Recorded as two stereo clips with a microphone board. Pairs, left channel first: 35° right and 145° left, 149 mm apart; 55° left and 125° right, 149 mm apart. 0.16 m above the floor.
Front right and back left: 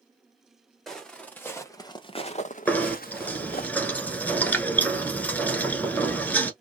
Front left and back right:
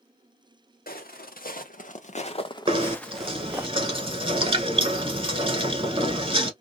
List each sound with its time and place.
0.9 s footsteps: 55° left, 1.3 m; by 3.7 s 45° right, 1.0 m
2.7 s knocking: 110° right, 1.0 m